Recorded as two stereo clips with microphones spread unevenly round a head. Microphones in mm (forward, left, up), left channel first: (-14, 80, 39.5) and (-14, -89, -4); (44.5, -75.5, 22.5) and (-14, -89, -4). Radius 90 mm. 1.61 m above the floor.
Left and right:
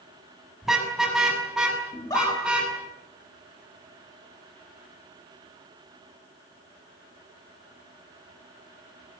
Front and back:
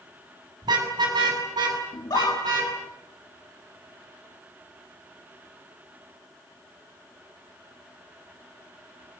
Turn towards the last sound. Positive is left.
turn(degrees=20)